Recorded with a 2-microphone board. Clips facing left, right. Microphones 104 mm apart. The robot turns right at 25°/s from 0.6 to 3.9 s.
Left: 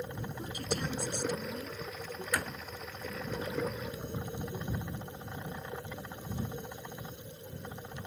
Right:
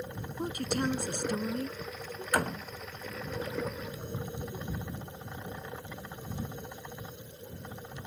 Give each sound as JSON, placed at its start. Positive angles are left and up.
{"t": 0.4, "sound": "a woman speaking", "side_deg": -55}
{"t": 2.3, "sound": "a door slam", "side_deg": -50}